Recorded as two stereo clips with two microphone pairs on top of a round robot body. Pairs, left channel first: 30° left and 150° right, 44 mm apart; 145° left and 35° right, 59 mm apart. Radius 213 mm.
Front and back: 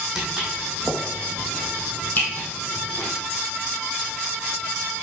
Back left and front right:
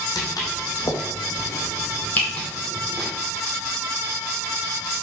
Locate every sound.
0.1 s footsteps: 125° left, 1.9 m; by 3.1 s 55° left, 1.7 m